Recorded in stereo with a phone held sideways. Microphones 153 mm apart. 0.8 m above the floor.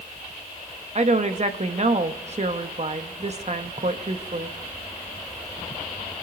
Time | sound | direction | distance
0.9 | a woman speaking | 45° right (ahead or behind) | 1.0 m